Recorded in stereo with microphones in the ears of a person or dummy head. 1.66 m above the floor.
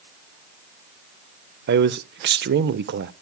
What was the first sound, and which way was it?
A man speaking, 60° right (ahead or behind).